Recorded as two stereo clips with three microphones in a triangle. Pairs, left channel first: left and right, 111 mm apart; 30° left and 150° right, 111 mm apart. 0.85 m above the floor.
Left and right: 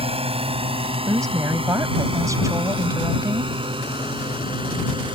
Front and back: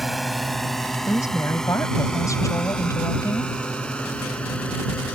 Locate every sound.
0.0 s a drone: 60° right; by 5.2 s 50° right
1.1 s a woman speaking: 30° right